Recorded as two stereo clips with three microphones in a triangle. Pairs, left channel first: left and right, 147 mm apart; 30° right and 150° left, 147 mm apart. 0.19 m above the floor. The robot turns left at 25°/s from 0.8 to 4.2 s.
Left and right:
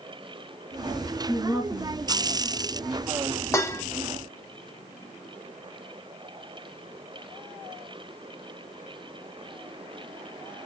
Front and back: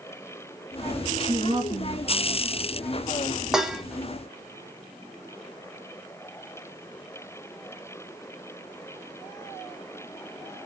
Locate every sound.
1.3 s a woman speaking: 155° right, 2.0 m; by 2.8 s 170° left, 2.0 m
3.5 s dishes clattering: 70° left, 0.7 m; by 3.8 s 65° left, 0.7 m